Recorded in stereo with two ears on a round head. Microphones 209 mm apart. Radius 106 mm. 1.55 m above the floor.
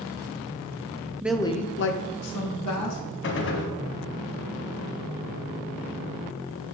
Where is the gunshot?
55° left (ahead or behind), 1.1 m.